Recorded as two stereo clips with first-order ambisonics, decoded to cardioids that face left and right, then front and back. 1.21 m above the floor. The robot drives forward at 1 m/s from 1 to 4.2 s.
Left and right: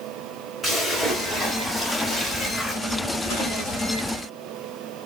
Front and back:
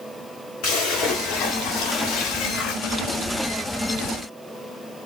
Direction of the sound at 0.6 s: 5° left.